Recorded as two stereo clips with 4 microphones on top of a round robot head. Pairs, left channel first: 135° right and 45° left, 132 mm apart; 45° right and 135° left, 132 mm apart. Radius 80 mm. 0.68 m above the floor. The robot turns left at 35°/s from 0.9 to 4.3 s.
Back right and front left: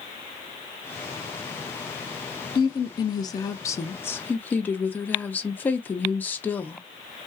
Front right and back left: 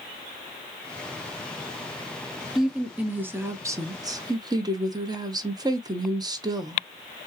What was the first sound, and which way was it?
A woman speaking, 140° right.